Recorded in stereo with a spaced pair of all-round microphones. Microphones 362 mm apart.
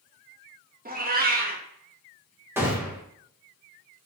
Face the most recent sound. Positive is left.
turn(degrees=-5)  # may be behind; listen again after turning